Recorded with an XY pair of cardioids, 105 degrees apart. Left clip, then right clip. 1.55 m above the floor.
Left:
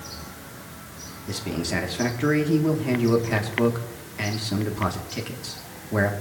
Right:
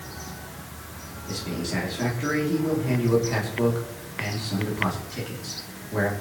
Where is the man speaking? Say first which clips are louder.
Left 2 dB; 40° left, 3 m.